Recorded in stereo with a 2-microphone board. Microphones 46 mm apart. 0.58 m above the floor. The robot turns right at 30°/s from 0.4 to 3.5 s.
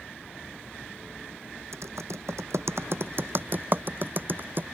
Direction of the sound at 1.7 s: 80° right.